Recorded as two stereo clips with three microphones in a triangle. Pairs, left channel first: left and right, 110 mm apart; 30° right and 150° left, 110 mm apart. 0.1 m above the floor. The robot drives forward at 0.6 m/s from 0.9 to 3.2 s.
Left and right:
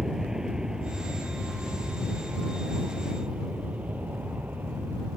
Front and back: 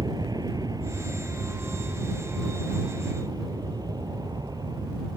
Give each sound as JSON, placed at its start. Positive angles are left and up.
{"t": 0.0, "sound": "an aircraft", "azimuth_deg": -175}